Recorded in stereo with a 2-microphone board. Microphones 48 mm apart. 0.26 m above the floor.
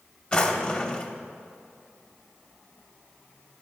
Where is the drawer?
20° left (ahead or behind), 0.5 m.